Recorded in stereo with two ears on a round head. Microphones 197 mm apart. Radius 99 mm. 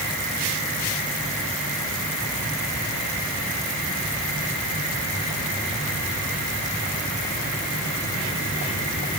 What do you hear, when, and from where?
Only background noise.